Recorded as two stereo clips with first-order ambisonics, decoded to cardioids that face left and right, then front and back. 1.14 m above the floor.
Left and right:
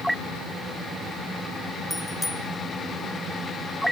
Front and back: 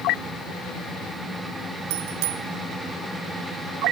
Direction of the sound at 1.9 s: 175° left.